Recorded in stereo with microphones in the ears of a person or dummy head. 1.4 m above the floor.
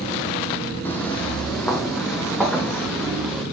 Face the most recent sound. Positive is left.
turn(degrees=-5)  # may be behind; listen again after turning